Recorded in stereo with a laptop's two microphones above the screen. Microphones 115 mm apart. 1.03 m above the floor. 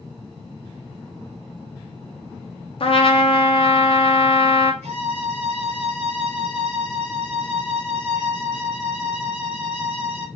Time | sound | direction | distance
2.8 | a trumpet | 55° left (ahead or behind) | 0.6 m
4.8 | a violin | 60° right (ahead or behind) | 1.5 m